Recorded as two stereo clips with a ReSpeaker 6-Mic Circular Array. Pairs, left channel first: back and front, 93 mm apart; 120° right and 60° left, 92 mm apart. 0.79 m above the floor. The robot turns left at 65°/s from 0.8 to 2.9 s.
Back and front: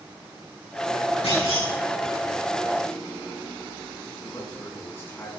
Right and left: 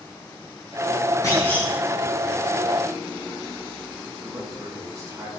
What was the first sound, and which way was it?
A clunk, 175° right.